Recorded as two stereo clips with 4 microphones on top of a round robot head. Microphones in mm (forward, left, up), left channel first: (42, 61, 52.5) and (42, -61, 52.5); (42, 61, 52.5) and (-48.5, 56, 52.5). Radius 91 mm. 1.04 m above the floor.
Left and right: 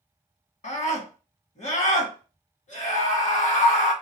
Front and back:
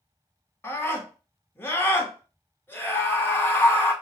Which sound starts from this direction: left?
A scream, at 0.6 s.